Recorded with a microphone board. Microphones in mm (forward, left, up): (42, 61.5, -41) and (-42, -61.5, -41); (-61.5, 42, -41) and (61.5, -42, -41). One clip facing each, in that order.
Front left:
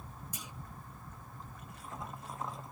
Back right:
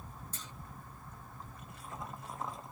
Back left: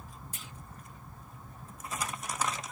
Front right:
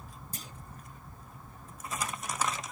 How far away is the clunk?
About 0.6 m.